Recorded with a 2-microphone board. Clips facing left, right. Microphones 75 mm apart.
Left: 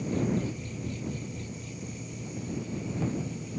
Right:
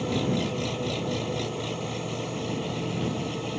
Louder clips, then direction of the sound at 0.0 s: Right 3 dB; 75° right (ahead or behind).